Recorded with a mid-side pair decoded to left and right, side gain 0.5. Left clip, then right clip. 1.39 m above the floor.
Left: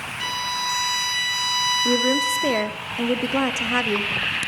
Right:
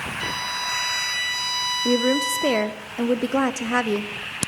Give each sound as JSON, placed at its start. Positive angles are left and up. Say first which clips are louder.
{"t": 0.2, "sound": "a violin", "louder": "left 3 dB", "azimuth_deg": 20, "distance_m": 0.8}
{"t": 1.9, "sound": "a woman speaking", "louder": "left 1 dB", "azimuth_deg": -10, "distance_m": 0.5}